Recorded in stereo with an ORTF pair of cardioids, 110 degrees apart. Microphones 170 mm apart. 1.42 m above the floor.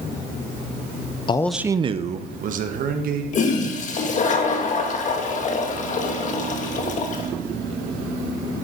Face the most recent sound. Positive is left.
turn(degrees=45)